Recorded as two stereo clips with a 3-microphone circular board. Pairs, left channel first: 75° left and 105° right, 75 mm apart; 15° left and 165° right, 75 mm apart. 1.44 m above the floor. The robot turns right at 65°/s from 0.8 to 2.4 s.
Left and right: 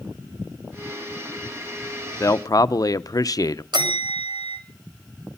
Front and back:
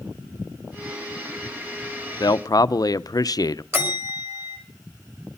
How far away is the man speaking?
About 0.7 m.